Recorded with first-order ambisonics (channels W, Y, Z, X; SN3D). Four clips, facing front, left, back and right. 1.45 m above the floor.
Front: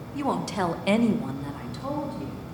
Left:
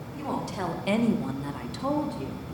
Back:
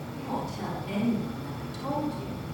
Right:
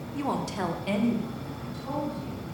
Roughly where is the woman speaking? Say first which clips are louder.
Right 2 dB, front 8 dB; ahead right.